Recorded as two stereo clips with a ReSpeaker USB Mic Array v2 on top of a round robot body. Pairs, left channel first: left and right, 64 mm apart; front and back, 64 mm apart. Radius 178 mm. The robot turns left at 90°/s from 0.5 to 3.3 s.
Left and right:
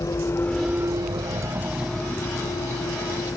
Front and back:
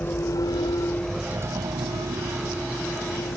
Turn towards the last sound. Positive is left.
turn(degrees=40)